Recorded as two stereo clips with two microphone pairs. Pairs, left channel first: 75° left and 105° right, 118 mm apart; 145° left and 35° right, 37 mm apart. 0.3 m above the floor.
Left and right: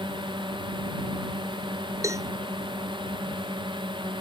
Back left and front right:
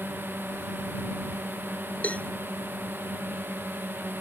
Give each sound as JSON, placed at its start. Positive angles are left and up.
{"t": 0.0, "sound": "a drone", "azimuth_deg": -60}
{"t": 2.0, "sound": "a cowbell", "azimuth_deg": -170}